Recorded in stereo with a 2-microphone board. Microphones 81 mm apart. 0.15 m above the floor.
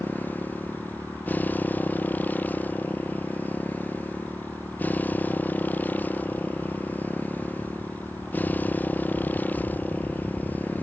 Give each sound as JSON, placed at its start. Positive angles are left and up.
{"t": 0.0, "sound": "a motorcycle", "side_deg": 20}